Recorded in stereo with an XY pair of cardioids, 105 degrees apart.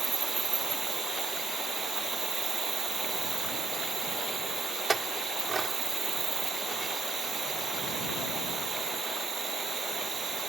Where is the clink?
30° right.